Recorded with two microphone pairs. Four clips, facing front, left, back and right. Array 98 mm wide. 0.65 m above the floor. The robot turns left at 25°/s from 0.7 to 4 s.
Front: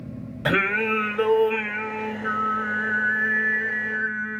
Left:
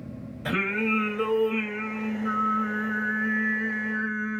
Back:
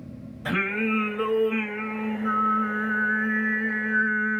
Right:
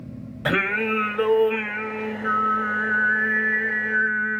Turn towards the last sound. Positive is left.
turn(degrees=-120)